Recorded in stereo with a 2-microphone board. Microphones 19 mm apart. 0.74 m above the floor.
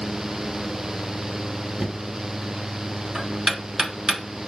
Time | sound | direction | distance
1.8 | knocking | 35° right (ahead or behind) | 0.8 m